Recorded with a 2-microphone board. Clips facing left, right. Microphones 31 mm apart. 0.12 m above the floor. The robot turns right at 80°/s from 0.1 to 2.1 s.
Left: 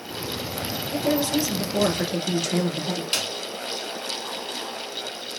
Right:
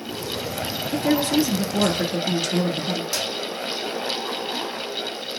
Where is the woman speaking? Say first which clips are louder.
Right 3 dB; 95° right, 2.5 m; by 3.0 s straight ahead, 2.5 m.